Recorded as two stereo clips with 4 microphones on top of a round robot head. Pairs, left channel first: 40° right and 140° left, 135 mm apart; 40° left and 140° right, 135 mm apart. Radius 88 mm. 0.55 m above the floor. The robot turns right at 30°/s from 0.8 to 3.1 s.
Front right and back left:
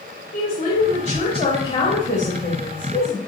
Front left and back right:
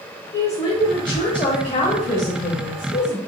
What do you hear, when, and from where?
0.3 s a woman speaking: 20° right, 1.1 m; by 3.2 s 50° left, 1.1 m